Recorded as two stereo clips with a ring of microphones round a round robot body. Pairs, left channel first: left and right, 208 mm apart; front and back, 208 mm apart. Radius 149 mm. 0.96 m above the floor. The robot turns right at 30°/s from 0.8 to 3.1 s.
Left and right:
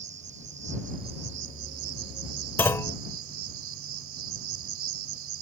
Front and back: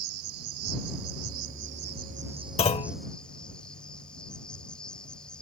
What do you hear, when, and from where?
0.0 s an insect: 155° right; by 5.4 s 85° right
2.6 s a clunk: 20° left; by 3.0 s 30° left